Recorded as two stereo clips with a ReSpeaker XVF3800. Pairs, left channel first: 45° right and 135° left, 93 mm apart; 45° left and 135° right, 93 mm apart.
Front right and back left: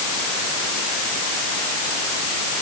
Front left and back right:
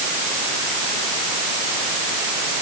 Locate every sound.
Only background noise.